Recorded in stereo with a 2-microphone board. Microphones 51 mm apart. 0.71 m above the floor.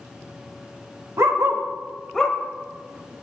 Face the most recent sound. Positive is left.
turn(degrees=15)  # may be behind; listen again after turning